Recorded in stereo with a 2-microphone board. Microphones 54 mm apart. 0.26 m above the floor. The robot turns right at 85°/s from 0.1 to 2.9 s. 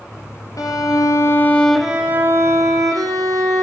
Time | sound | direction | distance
0.6 | a violin | 75° left | 2.5 m